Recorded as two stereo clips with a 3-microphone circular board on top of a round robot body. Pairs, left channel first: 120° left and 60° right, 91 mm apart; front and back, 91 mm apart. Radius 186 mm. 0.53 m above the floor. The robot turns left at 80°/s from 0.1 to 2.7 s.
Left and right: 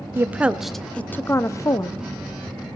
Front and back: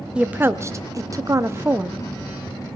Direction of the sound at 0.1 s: 105° right.